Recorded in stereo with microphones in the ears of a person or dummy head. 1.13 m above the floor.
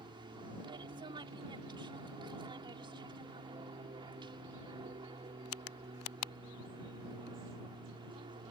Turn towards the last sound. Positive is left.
turn(degrees=-25)  # may be behind; listen again after turning